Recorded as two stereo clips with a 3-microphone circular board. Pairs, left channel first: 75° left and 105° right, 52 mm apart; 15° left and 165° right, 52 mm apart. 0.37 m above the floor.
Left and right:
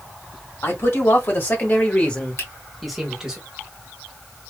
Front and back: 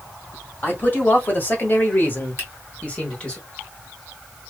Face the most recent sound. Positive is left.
turn(degrees=50)